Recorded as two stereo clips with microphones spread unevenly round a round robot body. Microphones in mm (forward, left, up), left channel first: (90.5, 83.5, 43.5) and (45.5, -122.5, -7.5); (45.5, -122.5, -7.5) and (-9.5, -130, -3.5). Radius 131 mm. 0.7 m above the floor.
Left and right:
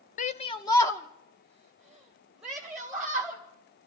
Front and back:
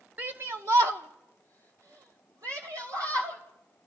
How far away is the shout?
About 0.6 m.